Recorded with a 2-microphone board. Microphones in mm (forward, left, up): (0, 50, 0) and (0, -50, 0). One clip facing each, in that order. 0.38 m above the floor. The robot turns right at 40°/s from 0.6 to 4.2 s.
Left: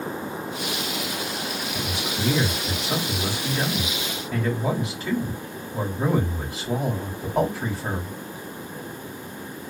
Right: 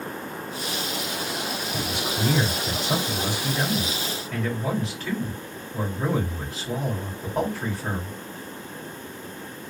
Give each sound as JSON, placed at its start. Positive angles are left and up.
{"t": 1.7, "sound": "a man speaking", "azimuth_deg": -85, "distance_m": 2.5}